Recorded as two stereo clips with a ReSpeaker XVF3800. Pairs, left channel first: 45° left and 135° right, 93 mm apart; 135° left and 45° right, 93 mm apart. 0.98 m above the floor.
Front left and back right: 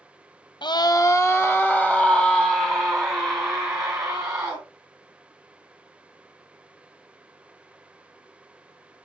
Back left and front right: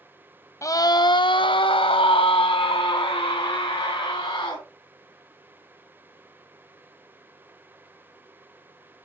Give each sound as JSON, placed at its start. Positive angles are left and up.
{"t": 0.6, "sound": "a scream", "azimuth_deg": 75, "distance_m": 0.5}